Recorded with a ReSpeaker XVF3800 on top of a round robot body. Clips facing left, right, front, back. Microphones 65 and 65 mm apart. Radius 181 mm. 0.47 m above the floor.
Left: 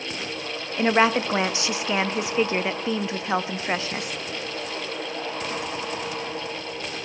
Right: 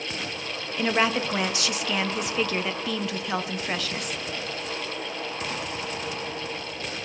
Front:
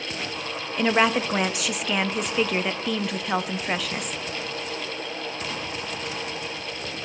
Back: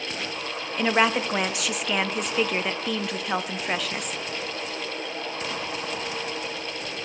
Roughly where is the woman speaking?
Left.